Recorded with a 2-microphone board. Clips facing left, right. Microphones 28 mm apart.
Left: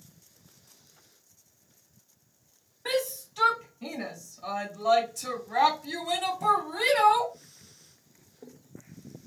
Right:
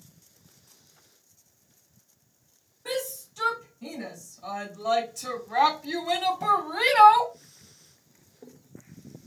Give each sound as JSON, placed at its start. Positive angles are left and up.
{"t": 2.9, "sound": "a shout", "side_deg": 50, "distance_m": 1.6}